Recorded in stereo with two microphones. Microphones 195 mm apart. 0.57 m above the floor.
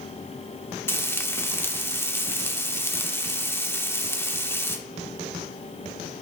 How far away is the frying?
About 0.8 m.